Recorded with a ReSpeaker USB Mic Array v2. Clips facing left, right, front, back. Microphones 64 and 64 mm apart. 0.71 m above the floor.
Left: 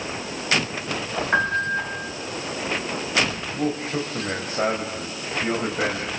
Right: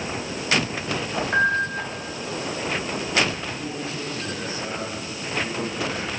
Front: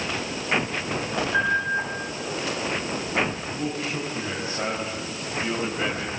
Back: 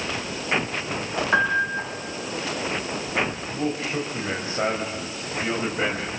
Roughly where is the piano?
Behind left.